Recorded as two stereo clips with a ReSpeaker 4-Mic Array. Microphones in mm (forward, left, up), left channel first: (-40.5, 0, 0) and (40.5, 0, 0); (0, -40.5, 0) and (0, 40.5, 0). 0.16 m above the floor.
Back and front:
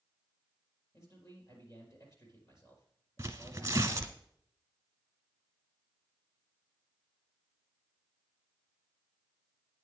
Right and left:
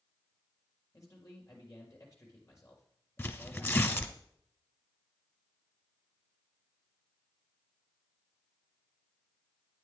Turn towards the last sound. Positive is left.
turn(degrees=-45)